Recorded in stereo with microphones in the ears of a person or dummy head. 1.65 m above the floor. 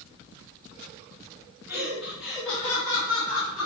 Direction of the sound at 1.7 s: 15° right (ahead or behind).